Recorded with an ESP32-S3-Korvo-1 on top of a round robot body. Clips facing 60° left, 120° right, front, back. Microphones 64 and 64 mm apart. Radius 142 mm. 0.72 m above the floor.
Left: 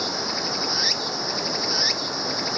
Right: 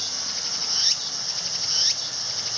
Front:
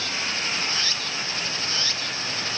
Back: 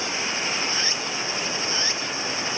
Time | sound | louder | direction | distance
0.0 | running water | left 11 dB, back 2 dB | 105° left | ?